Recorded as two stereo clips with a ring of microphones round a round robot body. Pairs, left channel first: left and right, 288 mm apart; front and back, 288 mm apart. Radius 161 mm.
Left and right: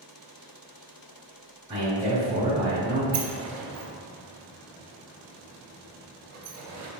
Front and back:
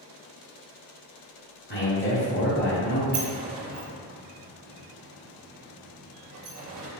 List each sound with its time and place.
1.7 s a man speaking: 30° right, 1.3 m
3.1 s a sliding door: 135° right, 0.6 m